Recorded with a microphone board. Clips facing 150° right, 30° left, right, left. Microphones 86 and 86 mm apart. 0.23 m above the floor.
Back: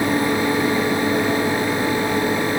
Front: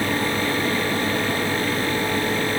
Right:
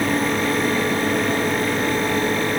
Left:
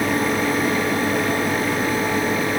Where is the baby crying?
I don't hear a baby crying.